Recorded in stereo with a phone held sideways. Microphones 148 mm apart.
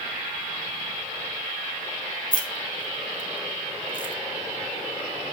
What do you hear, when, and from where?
2.3 s keys jangling: 65° left (ahead or behind), 1.0 m